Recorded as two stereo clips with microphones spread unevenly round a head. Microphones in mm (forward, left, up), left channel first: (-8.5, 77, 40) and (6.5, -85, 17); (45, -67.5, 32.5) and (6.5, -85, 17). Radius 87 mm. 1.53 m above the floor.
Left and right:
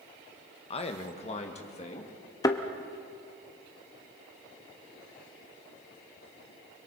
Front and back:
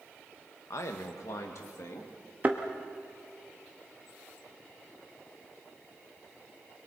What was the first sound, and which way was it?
A man speaking, 40° left.